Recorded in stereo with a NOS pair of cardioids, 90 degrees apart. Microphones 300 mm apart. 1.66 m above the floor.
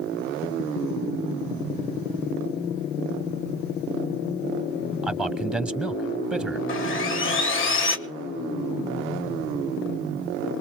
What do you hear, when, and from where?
5.0 s a man speaking: straight ahead, 1.3 m
6.7 s sawing: 45° left, 1.4 m